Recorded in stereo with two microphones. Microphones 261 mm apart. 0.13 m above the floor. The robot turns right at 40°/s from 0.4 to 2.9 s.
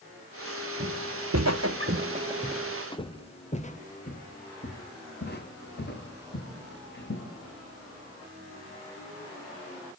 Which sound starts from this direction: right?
Footsteps, at 0.8 s.